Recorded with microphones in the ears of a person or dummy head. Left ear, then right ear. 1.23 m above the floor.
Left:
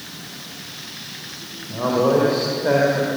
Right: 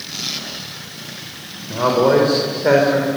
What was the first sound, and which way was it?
A man speaking, 75° right (ahead or behind).